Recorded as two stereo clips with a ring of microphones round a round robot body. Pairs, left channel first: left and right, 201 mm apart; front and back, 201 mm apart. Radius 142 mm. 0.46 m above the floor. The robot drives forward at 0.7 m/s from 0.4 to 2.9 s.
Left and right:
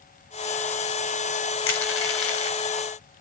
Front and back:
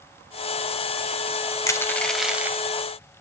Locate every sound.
1.7 s crushing: 75° left, 1.4 m; by 2.6 s 100° left, 1.4 m